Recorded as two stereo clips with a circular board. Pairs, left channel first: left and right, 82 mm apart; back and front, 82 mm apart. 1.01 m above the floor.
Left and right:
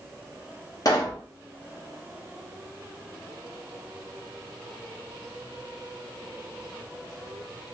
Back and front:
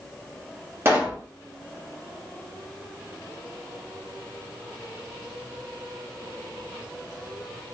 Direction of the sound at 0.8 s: 55° left.